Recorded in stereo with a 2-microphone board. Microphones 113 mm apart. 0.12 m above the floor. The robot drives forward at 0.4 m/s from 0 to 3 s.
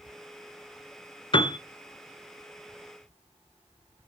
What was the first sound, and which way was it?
A piano, 45° left (ahead or behind).